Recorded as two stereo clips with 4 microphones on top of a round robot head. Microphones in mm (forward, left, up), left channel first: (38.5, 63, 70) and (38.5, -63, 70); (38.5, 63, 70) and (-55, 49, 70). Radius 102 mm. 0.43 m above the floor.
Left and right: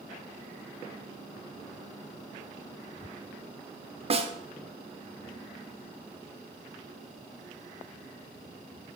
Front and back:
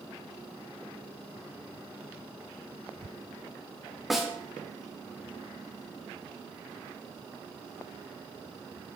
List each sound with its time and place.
4.1 s a snare drum: 85° right, 1.1 m